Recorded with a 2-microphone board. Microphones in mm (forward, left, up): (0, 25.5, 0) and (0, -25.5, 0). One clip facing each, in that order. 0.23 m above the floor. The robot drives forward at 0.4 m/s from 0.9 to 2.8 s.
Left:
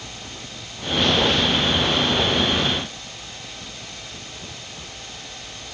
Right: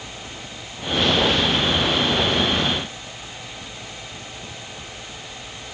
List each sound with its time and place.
Only background noise.